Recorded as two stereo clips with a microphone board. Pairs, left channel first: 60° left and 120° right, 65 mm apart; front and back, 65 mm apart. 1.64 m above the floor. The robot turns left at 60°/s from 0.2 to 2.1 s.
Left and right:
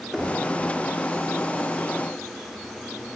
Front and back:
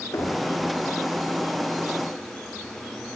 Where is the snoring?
No snoring in this recording.